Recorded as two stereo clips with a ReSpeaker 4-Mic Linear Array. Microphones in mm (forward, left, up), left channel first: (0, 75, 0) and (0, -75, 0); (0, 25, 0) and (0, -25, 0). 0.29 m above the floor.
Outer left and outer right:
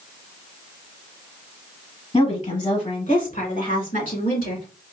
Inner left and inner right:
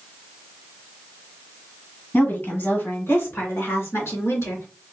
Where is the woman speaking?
45° left (ahead or behind), 1.9 m; by 4.7 s 70° left (ahead or behind), 2.5 m.